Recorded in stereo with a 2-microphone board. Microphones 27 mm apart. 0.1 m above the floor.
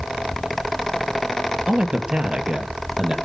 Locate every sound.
1.7 s a man speaking: 40° right (ahead or behind), 2 m; by 3.1 s 30° right (ahead or behind), 3 m